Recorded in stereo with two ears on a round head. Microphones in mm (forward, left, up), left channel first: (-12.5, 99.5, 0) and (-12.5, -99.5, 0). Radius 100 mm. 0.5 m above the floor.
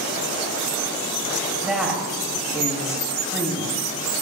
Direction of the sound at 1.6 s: 5° right (ahead or behind).